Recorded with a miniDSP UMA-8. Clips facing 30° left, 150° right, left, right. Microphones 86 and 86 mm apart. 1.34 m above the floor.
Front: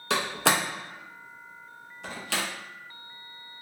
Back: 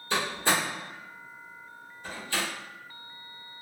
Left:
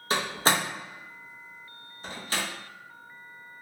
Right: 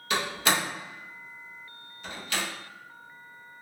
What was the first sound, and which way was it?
A door slam, 35° left.